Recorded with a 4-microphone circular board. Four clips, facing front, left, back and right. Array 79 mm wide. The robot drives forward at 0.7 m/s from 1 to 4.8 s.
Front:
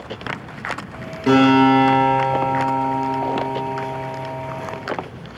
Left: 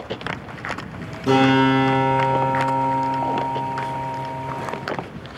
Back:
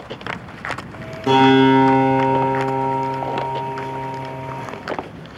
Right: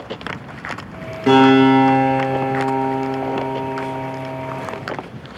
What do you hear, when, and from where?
1.3 s a guitar: 70° right, 4 m; by 4.6 s 105° right, 4 m